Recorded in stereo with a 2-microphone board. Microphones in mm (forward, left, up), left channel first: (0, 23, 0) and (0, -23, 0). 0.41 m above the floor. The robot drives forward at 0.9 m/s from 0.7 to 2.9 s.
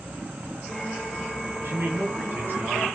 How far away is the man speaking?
About 3.5 m.